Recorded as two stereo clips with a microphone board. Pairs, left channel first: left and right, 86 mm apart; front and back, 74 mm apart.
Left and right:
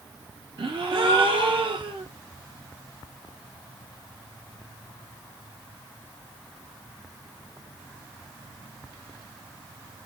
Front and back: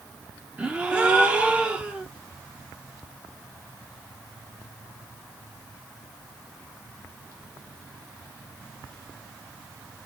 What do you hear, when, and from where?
0.6 s a gasp: 105° right, 0.7 m